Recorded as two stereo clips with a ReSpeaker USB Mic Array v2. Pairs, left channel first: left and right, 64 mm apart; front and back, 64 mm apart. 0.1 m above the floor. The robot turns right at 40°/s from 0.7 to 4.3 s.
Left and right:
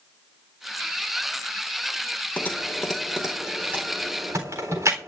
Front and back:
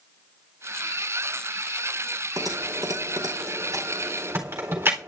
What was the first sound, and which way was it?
Typing on a keyboard, 155° left.